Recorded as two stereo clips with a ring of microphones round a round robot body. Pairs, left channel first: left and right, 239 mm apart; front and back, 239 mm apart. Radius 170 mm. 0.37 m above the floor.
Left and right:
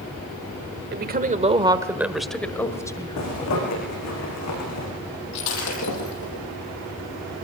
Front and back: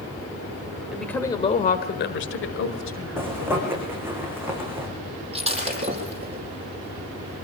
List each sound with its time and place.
0.9 s a woman speaking: 95° right, 1.4 m; by 3.5 s 20° left, 3 m
3.2 s a zipper: 100° left, 8.5 m
5.3 s breaking glass: 115° left, 7 m